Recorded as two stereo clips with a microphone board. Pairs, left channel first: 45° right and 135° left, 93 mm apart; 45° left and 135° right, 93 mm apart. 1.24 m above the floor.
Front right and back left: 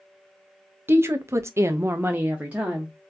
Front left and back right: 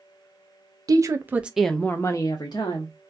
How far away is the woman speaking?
About 0.6 m.